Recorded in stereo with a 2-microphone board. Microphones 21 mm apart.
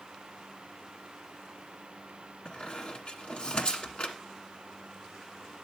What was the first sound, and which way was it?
A squeak, 50° left (ahead or behind).